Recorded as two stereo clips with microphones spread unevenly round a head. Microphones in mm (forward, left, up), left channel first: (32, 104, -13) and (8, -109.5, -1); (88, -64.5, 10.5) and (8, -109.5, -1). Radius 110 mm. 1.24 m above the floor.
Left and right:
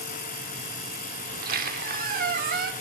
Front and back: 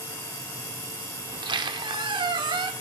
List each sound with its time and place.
1.3 s a squeak: 130° right, 1.2 m